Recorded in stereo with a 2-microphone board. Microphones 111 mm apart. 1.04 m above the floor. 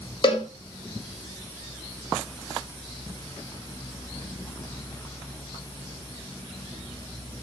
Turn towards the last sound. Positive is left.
turn(degrees=45)  # may be behind; listen again after turning